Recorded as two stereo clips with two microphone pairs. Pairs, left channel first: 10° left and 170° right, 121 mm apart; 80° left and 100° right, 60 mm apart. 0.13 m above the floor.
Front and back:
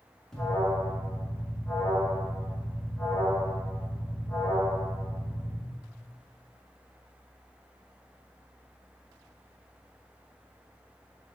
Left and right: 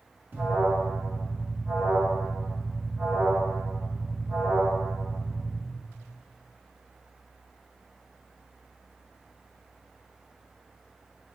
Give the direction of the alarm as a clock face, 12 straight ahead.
2 o'clock.